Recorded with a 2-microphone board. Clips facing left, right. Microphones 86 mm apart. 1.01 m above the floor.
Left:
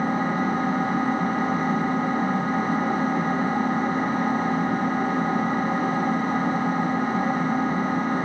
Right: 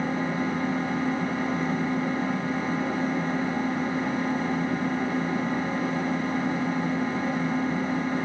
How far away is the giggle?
No giggle in this recording.